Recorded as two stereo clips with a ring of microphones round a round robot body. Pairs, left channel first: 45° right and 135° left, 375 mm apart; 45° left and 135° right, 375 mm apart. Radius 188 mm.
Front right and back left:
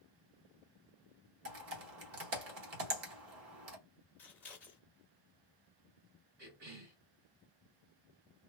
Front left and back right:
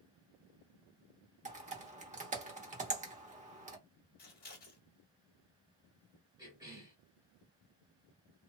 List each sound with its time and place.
1.4 s typing on a keyboard: 165° left, 0.8 m
4.2 s scissors: 35° left, 1.3 m
6.4 s a cough: 145° left, 1.8 m